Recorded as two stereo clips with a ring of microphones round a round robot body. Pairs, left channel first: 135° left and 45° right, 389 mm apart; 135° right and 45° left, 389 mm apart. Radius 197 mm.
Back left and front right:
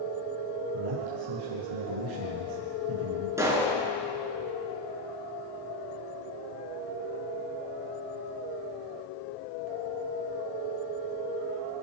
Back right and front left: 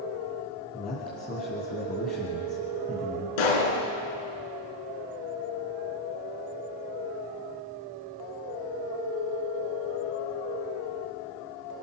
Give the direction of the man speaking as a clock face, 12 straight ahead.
2 o'clock.